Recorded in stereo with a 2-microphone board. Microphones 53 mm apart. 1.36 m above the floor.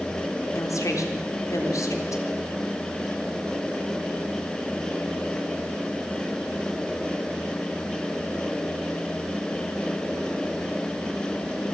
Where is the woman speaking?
75° left (ahead or behind), 3.5 m.